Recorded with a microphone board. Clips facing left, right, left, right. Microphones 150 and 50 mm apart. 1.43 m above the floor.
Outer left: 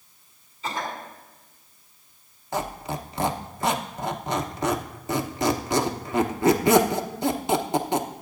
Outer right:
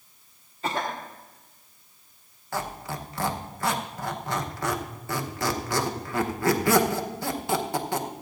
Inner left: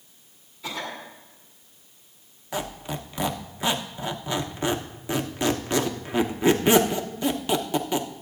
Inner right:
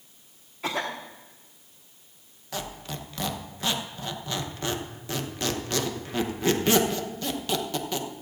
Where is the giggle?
I don't hear a giggle.